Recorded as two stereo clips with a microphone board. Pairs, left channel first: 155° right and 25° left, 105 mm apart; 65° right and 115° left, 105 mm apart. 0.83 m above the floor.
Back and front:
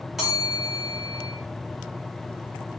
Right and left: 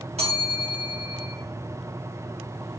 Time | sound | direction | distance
0.2 | a bell | 110° left | 2.5 m